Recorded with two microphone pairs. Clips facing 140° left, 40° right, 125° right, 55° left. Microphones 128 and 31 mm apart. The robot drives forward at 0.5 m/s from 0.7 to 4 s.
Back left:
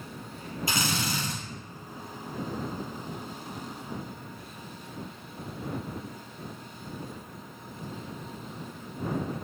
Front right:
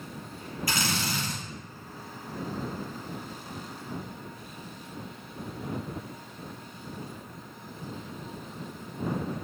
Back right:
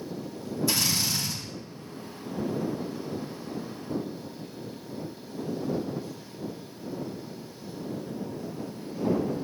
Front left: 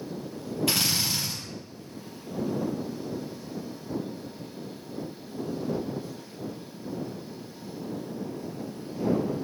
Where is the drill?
75° left, 4 m; by 1.4 s 80° left, 4 m.